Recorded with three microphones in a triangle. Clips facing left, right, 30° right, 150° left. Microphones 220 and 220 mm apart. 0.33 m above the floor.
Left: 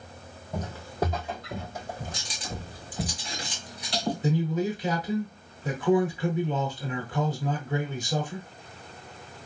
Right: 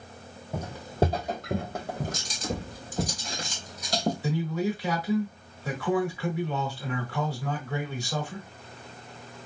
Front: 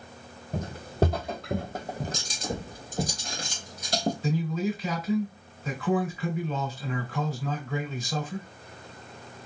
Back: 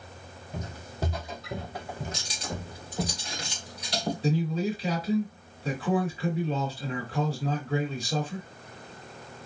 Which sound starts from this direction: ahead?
Footsteps, at 0.5 s.